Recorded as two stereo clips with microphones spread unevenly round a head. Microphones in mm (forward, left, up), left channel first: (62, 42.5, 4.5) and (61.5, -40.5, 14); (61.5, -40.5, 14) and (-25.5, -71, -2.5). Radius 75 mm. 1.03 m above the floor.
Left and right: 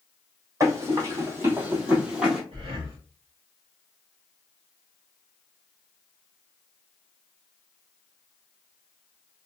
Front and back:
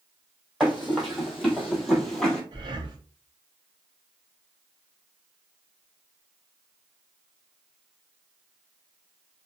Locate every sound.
0.6 s running footsteps: 65° right, 1.6 m; by 2.4 s 25° right, 1.1 m
2.5 s breathing: 120° right, 0.6 m